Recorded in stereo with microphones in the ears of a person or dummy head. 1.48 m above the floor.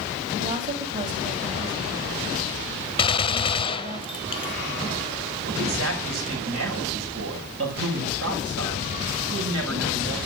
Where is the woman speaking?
40° right (ahead or behind), 4 m.